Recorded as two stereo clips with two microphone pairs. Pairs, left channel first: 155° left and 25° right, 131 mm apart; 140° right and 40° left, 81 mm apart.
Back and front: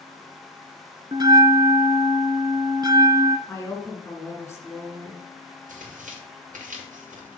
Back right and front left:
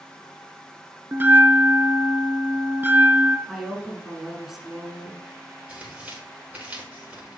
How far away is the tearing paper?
About 5 m.